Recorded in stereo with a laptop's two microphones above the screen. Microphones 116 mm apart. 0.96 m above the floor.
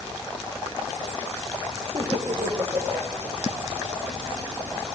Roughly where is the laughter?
Right.